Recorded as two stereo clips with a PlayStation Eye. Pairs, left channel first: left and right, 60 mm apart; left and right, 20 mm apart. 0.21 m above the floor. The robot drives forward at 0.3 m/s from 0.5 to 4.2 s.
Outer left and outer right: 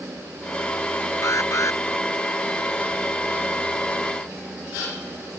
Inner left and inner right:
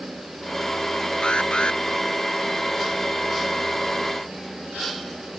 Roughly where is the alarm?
Left.